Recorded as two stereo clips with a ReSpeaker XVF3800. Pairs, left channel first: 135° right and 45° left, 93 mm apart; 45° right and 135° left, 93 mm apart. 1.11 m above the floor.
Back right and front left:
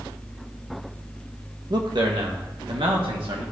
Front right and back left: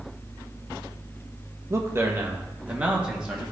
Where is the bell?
I don't hear a bell.